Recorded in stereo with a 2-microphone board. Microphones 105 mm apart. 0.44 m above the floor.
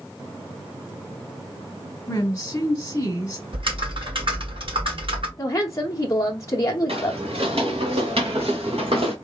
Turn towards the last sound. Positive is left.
turn(degrees=-70)  # may be behind; listen again after turning